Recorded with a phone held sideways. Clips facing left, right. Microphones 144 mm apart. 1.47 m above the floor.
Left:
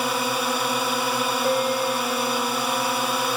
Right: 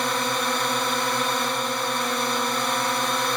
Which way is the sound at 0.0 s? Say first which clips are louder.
Left 1 dB; 5° left (ahead or behind).